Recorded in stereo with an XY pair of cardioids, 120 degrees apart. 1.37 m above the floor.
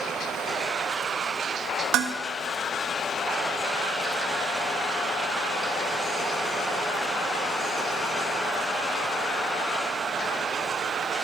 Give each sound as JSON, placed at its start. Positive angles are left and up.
{"t": 1.9, "sound": "dishes clattering", "azimuth_deg": -70, "distance_m": 1.3}